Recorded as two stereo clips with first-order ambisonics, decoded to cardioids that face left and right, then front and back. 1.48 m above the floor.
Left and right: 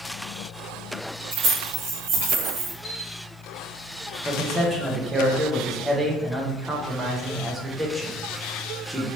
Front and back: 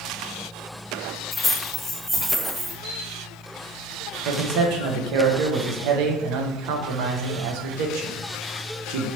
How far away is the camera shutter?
About 1.0 m.